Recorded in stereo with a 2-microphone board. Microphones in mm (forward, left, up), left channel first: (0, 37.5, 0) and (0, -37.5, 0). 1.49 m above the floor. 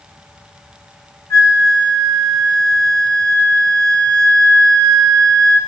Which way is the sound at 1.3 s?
40° left (ahead or behind).